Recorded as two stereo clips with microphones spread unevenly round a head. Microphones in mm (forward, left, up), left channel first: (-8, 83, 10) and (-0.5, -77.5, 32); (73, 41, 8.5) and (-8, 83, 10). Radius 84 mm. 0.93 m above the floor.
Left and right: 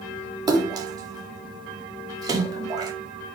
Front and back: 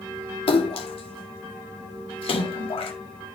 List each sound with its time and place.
0.5 s a splash: 20° right, 1.8 m